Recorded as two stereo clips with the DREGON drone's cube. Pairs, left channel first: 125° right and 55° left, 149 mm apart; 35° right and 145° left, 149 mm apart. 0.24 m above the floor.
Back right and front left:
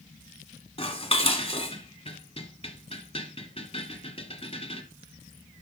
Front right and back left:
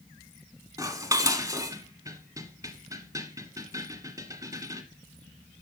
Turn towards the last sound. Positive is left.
turn(degrees=-155)